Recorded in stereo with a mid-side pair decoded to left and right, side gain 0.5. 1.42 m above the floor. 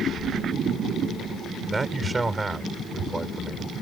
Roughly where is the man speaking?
Ahead right.